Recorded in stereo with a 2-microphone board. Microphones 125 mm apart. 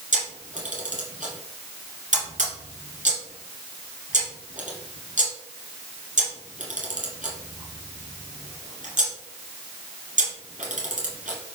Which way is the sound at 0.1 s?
75° right (ahead or behind).